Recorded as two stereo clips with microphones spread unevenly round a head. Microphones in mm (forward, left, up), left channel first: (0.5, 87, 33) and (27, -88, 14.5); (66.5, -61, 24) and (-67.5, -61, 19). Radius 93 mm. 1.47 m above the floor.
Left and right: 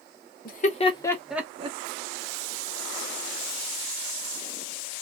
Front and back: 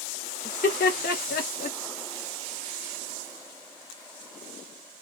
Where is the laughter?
55° left, 1.1 m; by 1.8 s 25° right, 0.8 m.